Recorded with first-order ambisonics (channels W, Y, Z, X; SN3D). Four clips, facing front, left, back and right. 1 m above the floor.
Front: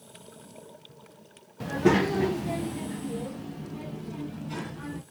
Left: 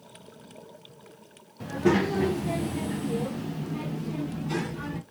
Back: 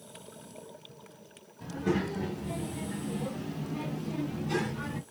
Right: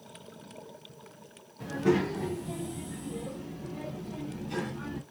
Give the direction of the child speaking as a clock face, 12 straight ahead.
12 o'clock.